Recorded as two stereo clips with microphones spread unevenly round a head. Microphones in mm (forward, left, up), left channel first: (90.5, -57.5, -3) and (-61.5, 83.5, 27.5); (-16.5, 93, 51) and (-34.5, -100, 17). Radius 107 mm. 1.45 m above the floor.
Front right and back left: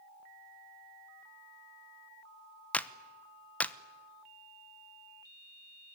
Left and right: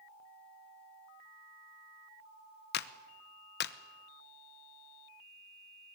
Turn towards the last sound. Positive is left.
turn(degrees=40)